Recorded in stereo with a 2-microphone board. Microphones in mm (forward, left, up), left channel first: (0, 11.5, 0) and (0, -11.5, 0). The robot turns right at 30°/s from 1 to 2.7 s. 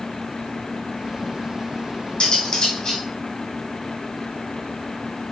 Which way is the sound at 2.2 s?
55° left (ahead or behind).